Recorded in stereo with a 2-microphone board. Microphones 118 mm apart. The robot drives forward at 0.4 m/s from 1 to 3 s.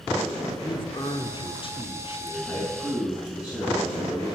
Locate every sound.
0.6 s a man speaking: 45° left (ahead or behind), 1.2 m
2.4 s a man speaking: 35° left (ahead or behind), 4.5 m